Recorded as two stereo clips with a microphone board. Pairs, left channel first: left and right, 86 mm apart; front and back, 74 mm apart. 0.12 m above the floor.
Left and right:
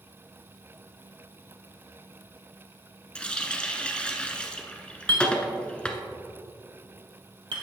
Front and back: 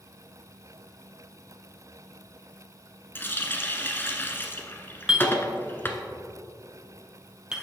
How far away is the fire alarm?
I don't hear a fire alarm.